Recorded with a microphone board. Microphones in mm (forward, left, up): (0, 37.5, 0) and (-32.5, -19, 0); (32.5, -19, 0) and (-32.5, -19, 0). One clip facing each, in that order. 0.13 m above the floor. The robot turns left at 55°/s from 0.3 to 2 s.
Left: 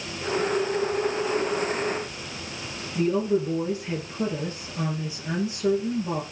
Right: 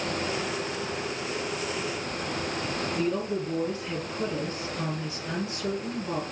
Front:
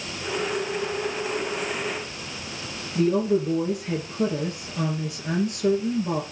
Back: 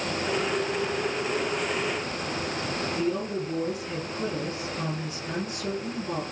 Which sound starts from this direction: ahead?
A woman speaking, at 3.0 s.